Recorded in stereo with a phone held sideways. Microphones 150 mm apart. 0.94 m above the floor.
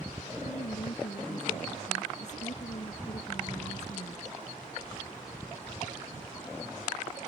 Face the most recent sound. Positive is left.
turn(degrees=60)  # may be behind; listen again after turning